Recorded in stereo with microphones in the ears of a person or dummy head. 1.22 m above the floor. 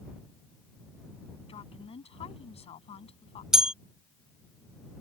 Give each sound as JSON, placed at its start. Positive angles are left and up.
{"t": 1.5, "sound": "a woman speaking", "side_deg": 35}
{"t": 3.5, "sound": "a bell", "side_deg": -5}